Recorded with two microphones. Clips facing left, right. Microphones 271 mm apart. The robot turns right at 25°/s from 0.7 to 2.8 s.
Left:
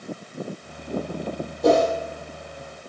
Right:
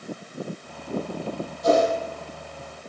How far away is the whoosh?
About 2 m.